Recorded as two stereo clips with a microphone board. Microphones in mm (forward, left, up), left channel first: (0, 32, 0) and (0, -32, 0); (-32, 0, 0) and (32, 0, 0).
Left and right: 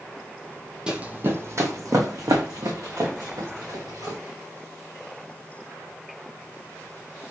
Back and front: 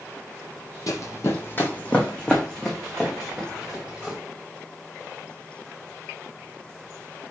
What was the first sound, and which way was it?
Running footsteps, 165° right.